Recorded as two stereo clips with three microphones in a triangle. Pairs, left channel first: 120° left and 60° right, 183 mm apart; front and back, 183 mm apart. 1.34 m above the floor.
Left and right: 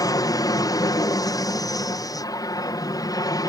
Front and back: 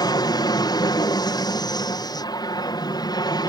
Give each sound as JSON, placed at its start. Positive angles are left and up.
{"t": 0.0, "sound": "an aircraft", "azimuth_deg": 60}